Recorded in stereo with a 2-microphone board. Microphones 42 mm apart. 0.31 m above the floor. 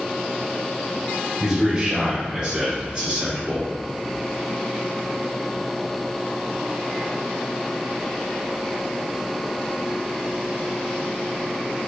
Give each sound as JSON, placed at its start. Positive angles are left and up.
{"t": 1.4, "sound": "a man speaking", "side_deg": -10, "distance_m": 1.0}